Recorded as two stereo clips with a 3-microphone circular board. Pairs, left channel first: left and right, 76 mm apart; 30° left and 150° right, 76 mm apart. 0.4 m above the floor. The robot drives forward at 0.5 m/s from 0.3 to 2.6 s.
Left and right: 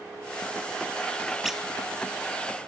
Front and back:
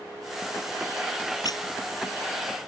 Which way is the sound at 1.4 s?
5° right.